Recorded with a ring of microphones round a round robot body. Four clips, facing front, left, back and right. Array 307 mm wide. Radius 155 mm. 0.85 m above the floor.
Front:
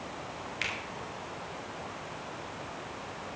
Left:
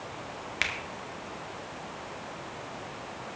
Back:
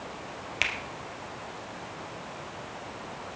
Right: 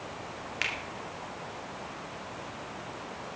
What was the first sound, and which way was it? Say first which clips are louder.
A finger snap: left 2 dB, back 6 dB; 150° left.